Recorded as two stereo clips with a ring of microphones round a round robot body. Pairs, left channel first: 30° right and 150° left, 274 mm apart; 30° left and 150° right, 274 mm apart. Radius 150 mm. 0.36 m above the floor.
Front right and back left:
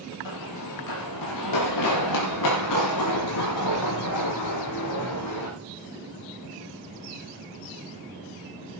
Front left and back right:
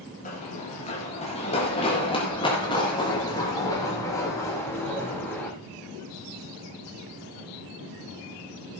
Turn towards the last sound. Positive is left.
turn(degrees=-55)